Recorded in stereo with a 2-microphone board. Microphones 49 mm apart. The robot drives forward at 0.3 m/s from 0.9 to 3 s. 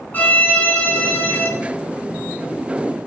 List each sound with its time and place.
0.1 s a violin: 35° left (ahead or behind), 1.0 m